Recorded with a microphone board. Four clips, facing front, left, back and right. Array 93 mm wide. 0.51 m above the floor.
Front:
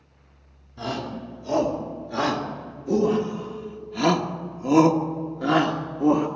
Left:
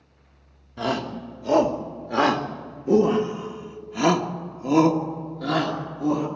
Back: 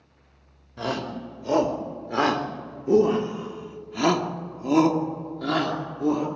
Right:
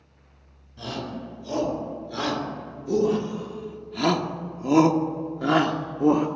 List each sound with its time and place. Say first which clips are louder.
0.8 s a shout: left 6 dB, back 1 dB; 120° left, 2.5 m; by 6.3 s 55° right, 1.5 m